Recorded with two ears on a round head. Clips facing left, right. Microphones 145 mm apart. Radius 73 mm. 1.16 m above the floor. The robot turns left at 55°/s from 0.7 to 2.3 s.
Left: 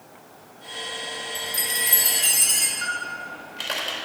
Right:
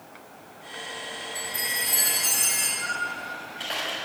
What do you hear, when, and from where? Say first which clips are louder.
1.4 s a chime: left 2 dB; 125° left, 3.5 m; by 2.7 s 75° left, 3.5 m
2.8 s a camera shutter: even; 85° left, 3.5 m